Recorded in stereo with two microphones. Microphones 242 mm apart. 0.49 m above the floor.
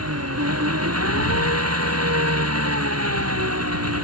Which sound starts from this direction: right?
An engine running, at 0.0 s.